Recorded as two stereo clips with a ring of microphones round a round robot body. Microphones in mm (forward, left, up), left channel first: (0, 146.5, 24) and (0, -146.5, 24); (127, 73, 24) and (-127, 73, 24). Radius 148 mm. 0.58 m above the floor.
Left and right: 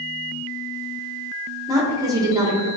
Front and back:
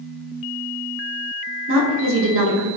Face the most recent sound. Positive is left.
turn(degrees=-165)